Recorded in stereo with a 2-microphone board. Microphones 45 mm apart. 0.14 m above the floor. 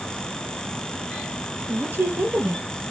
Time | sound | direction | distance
1.7 | a woman speaking | 50° right (ahead or behind) | 3.5 m